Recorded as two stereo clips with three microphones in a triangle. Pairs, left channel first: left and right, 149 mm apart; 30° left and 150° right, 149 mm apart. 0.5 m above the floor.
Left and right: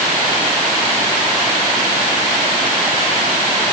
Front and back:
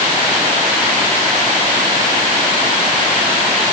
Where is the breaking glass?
I don't hear breaking glass.